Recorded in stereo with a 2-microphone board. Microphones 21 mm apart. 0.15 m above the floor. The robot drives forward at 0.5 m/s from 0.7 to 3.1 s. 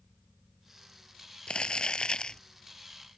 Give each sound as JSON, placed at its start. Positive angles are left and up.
{"t": 1.5, "sound": "crumpling", "side_deg": 55}